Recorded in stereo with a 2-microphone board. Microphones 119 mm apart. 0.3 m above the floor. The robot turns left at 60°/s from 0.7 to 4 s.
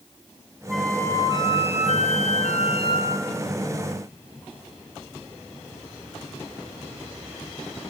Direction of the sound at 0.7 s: Straight behind.